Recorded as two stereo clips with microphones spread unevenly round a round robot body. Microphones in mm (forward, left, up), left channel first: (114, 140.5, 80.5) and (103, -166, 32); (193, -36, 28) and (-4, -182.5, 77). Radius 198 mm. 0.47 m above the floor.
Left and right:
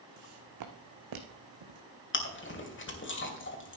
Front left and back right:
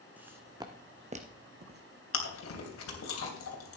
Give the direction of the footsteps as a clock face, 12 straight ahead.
2 o'clock.